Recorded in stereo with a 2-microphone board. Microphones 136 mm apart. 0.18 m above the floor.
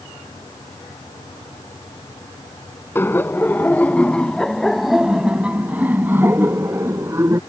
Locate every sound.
3.0 s laughter: 15° left (ahead or behind); by 7.4 s 20° right (ahead or behind)